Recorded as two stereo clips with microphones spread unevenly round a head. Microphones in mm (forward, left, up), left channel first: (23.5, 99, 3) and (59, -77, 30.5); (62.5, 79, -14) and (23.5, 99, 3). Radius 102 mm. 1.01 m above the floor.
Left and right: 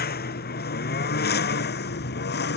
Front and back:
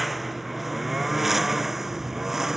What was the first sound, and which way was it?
A lawn mower, 65° left.